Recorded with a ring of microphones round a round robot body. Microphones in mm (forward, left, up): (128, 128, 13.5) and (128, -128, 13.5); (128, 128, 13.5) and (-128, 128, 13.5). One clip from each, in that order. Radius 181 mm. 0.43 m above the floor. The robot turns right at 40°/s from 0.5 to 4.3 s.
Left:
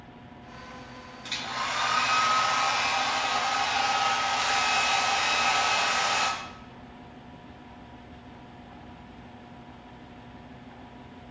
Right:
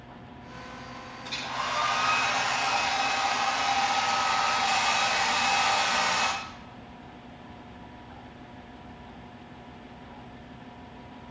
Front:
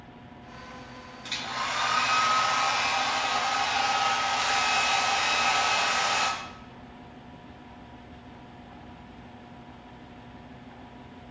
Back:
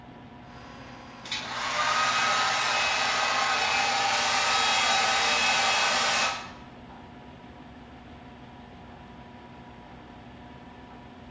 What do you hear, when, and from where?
1.2 s a hair dryer: 85° left, 6.5 m; by 6.3 s 150° right, 6.5 m